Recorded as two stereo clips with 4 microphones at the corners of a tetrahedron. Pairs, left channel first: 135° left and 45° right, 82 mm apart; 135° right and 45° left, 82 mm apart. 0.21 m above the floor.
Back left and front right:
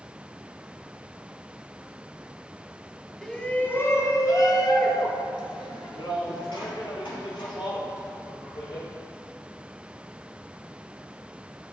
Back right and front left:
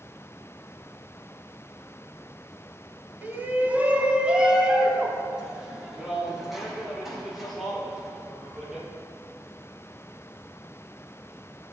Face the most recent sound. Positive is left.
turn(degrees=135)